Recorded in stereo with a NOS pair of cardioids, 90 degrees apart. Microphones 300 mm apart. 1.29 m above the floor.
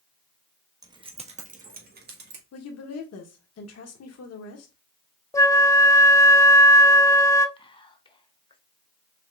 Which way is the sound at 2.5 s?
55° left.